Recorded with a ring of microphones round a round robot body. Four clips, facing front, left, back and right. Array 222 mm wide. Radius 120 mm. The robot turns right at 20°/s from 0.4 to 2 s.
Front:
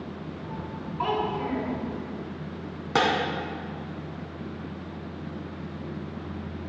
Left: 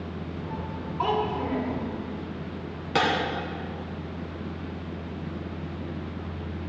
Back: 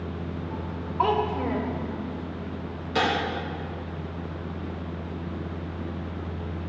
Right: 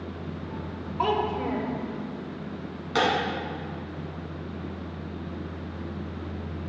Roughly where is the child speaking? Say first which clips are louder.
Right 1 dB, back 3 dB; behind.